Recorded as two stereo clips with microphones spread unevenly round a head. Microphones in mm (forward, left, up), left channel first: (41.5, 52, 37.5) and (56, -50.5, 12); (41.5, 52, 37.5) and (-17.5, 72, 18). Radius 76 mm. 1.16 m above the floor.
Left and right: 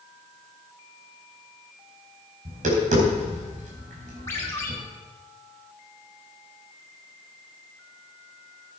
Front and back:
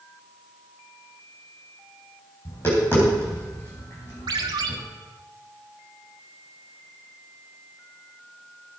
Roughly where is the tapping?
Right.